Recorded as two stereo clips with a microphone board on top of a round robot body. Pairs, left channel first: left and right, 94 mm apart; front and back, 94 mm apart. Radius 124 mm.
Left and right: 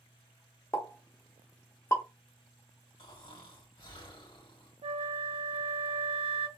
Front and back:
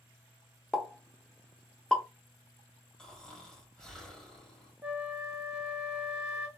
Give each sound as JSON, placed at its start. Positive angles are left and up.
{"t": 0.7, "sound": "a pop", "azimuth_deg": 75, "distance_m": 1.1}
{"t": 3.0, "sound": "snoring", "azimuth_deg": 80, "distance_m": 1.8}
{"t": 4.8, "sound": "a flute", "azimuth_deg": -100, "distance_m": 0.5}